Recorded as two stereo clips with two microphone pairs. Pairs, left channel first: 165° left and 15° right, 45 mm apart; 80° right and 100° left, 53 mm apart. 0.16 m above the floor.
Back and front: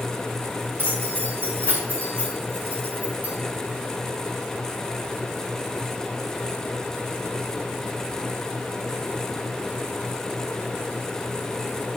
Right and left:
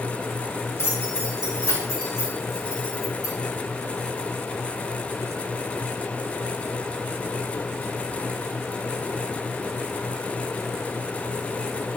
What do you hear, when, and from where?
0.8 s keys jangling: 50° right, 4.5 m; by 3.3 s 70° right, 5 m